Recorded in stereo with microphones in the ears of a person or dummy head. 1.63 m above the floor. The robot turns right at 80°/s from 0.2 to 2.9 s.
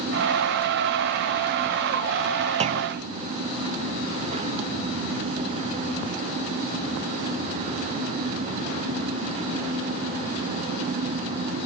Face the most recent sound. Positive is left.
turn(degrees=-55)  # may be behind; listen again after turning